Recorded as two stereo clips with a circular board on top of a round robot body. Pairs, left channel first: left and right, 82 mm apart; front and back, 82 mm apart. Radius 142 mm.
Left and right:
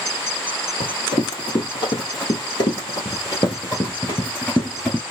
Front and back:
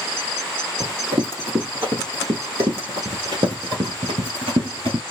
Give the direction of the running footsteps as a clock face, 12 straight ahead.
8 o'clock.